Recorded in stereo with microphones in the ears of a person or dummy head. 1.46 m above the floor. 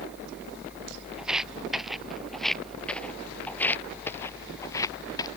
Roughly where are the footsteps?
Centre.